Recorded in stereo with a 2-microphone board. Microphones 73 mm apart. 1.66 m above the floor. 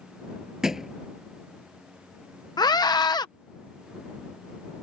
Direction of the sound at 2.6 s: 70° left (ahead or behind).